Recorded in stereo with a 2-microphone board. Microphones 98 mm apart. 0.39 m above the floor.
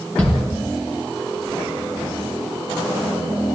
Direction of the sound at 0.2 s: 15° left (ahead or behind).